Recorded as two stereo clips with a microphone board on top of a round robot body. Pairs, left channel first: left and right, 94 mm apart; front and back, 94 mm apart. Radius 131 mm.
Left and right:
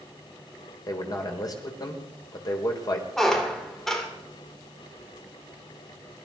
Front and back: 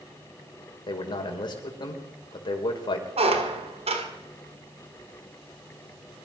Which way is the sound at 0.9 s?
40° left.